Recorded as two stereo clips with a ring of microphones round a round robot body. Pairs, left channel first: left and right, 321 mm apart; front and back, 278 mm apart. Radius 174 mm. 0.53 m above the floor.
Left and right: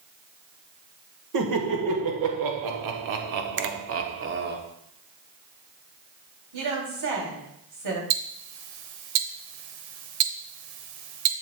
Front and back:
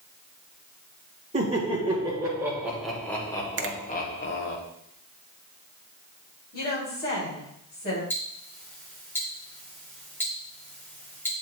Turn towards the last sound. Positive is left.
turn(degrees=-85)